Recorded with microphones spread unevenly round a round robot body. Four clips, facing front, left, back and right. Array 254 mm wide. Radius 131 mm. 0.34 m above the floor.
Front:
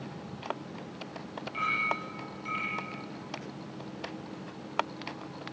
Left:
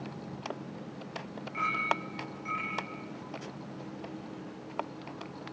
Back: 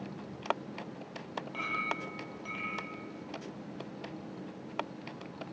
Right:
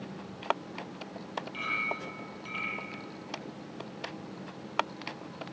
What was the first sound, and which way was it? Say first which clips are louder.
A clink: left 7 dB, front 5 dB; 170° right.